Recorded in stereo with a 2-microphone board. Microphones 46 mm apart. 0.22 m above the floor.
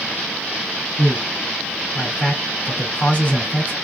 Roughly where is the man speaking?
Left.